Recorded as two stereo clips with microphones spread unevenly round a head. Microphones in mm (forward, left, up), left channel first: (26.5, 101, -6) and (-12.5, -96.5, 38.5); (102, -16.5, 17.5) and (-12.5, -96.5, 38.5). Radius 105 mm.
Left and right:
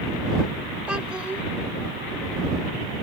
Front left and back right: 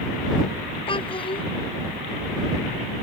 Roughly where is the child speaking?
Ahead.